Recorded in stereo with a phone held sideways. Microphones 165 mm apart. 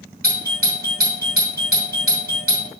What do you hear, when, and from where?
0.2 s a doorbell: 65° right (ahead or behind), 2.5 m